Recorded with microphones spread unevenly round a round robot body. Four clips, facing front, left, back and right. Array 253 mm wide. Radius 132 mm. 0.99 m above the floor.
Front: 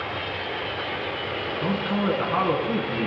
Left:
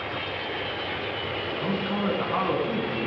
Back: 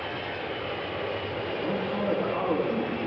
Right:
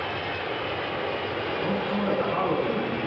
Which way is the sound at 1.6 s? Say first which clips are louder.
Even, front 4 dB; 30° left.